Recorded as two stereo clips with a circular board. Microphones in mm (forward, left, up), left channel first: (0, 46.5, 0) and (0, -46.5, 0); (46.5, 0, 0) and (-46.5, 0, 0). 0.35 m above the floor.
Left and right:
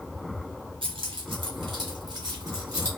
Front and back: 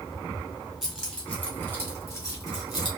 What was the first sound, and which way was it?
Keys jangling, 90° right.